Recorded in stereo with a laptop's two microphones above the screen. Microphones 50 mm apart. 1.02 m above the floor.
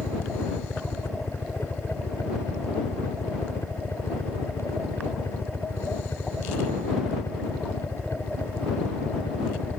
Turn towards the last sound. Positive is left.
turn(degrees=65)  # may be behind; listen again after turning